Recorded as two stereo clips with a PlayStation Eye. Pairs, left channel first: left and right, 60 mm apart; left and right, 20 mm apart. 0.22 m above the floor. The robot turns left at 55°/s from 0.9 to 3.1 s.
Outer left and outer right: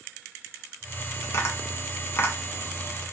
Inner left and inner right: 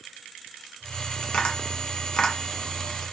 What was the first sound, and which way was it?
Tapping, 45° left (ahead or behind).